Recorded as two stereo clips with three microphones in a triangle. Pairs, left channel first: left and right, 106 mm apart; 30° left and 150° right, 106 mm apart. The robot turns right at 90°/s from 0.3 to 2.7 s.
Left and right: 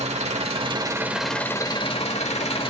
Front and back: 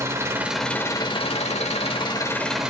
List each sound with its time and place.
0.0 s an engine running: 85° right, 1.1 m; by 2.7 s 130° left, 1.1 m